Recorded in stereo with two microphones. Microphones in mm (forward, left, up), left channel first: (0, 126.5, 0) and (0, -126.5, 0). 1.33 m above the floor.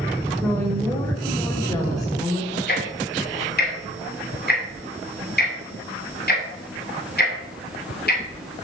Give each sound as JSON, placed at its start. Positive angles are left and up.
{"t": 0.4, "sound": "a woman speaking", "side_deg": 5, "distance_m": 4.0}
{"t": 2.7, "sound": "ticking", "side_deg": 40, "distance_m": 2.5}